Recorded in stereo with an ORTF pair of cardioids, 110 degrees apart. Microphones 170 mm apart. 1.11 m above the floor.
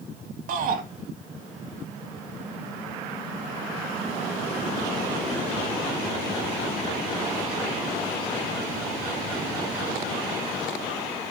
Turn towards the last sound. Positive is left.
turn(degrees=-60)